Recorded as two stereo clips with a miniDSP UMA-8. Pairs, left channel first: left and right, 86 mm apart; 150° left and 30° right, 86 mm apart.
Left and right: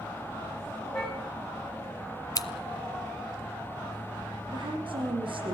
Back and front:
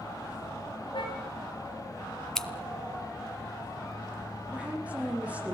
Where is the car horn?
170° left, 9 m.